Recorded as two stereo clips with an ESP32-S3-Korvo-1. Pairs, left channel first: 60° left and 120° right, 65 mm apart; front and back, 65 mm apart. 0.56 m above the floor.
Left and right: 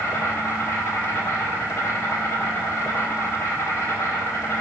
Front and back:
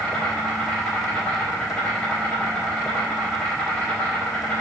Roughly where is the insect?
Ahead left.